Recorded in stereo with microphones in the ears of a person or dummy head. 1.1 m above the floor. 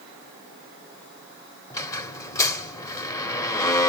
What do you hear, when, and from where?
1.7 s a squeak: 20° left (ahead or behind), 1.1 m